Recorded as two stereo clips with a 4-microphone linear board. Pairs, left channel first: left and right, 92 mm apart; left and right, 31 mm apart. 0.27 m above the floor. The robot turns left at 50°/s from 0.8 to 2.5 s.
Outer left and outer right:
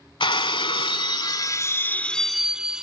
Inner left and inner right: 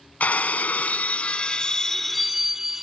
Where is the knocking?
No knocking in this recording.